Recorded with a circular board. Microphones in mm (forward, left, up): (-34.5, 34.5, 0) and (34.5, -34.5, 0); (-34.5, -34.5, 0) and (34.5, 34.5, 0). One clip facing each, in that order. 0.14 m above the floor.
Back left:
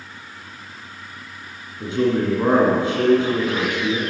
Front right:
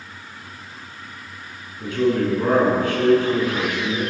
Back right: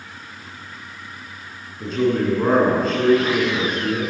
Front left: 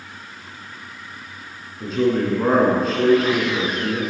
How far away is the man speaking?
About 1.2 m.